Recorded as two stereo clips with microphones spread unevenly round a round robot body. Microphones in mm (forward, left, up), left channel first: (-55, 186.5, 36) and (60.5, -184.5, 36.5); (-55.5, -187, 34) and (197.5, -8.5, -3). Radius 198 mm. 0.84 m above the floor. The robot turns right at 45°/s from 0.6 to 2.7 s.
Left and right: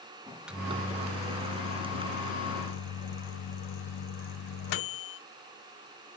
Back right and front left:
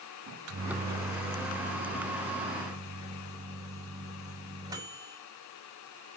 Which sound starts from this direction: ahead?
A microwave, at 0.3 s.